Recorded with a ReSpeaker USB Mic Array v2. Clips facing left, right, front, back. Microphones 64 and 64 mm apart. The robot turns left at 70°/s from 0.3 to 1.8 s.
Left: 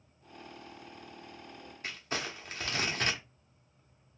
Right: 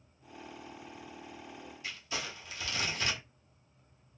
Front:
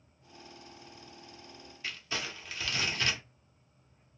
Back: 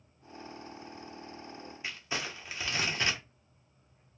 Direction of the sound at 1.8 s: 115° left.